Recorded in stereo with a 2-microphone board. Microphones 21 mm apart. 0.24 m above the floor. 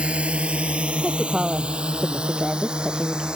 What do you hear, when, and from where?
0.0 s a drone: 70° right (ahead or behind); by 3.4 s 45° right (ahead or behind)
1.0 s a woman speaking: 30° right (ahead or behind)